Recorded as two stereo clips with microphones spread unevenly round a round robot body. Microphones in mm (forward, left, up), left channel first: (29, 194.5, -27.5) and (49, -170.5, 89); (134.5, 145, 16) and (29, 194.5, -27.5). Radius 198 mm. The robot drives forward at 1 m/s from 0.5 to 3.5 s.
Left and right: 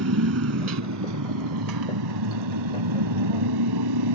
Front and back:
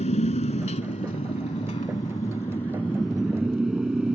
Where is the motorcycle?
40° right; by 4.2 s 110° right.